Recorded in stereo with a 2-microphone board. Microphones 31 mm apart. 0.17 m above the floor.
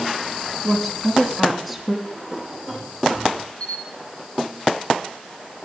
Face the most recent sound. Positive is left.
turn(degrees=35)  # may be behind; listen again after turning